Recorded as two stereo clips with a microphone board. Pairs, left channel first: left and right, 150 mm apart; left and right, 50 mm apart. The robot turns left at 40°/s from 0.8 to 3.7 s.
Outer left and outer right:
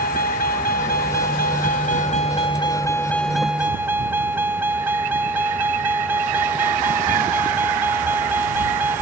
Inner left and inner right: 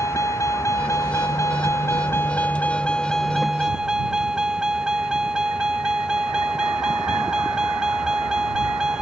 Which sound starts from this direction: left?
A vehicle, at 0.0 s.